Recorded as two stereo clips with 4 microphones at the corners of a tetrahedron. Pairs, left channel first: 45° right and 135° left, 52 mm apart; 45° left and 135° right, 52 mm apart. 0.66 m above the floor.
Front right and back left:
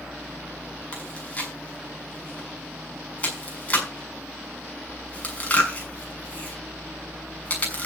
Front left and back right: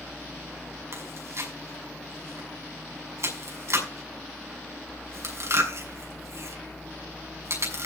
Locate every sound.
0.9 s chewing: 110° right, 6.5 m